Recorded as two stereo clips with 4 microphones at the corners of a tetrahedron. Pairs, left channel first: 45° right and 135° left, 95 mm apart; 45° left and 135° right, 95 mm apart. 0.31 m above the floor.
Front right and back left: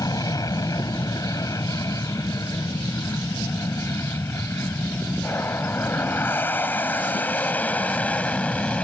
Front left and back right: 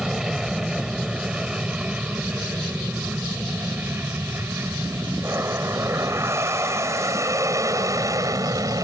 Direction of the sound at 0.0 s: 55° right.